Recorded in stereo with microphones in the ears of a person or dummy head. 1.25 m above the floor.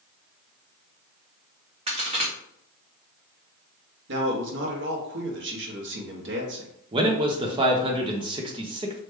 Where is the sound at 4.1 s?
60° right (ahead or behind), 0.8 m.